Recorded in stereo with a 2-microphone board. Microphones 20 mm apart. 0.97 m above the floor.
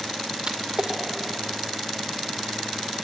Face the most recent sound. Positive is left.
turn(degrees=-60)  # may be behind; listen again after turning